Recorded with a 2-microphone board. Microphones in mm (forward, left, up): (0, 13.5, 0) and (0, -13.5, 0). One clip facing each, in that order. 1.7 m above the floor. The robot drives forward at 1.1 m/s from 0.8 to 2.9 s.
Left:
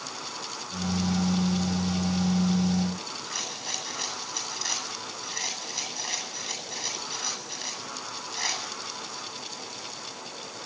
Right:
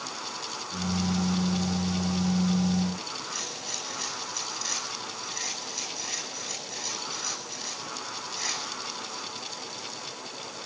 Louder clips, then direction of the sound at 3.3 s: Left 1 dB; 25° left (ahead or behind).